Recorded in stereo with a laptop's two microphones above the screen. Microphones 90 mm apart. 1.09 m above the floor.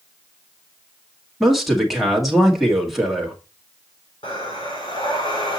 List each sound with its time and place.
1.4 s a man speaking: centre (ahead or behind), 1.7 m
4.2 s breathing: 65° left (ahead or behind), 3 m